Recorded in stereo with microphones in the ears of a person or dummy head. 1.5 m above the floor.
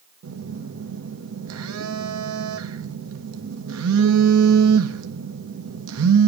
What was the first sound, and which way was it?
A phone buzzing, 80° right.